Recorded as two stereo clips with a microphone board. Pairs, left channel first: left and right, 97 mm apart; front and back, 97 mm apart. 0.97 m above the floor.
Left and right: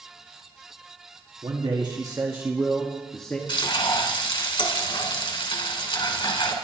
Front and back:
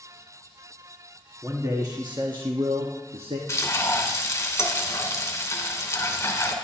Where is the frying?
60° left, 2.5 m.